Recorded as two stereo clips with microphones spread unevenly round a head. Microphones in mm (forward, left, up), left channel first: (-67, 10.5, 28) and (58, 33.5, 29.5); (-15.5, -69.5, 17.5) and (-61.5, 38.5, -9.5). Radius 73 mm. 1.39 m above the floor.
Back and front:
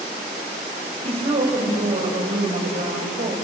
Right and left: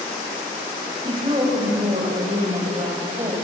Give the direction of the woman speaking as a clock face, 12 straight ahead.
10 o'clock.